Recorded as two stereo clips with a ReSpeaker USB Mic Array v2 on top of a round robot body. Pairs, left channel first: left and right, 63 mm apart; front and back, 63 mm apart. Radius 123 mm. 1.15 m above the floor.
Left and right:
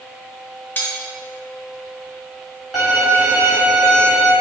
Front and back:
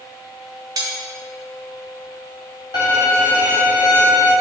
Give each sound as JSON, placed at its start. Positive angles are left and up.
{"t": 0.8, "sound": "cutlery clinking", "azimuth_deg": 155, "distance_m": 0.5}
{"t": 2.7, "sound": "a violin", "azimuth_deg": 0, "distance_m": 1.0}